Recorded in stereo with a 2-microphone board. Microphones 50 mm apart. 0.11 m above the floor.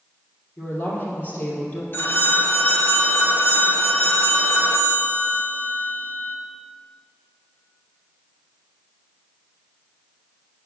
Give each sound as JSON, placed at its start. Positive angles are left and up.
{"t": 0.6, "sound": "a woman speaking", "side_deg": 30, "distance_m": 3.0}
{"t": 1.9, "sound": "a phone ringing", "side_deg": 45, "distance_m": 1.0}